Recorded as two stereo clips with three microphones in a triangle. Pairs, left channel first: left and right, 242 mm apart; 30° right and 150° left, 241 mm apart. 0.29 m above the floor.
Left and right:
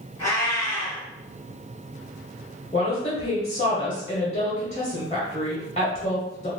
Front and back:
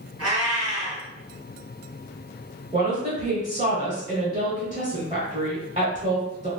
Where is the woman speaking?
125° left, 1.0 m.